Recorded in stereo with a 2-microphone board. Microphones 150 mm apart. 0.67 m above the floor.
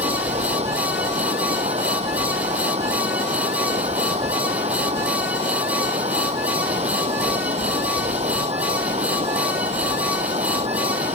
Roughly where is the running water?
Right.